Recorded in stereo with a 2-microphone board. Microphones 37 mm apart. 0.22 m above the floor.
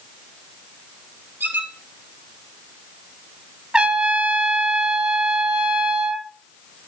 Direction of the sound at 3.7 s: 30° right (ahead or behind).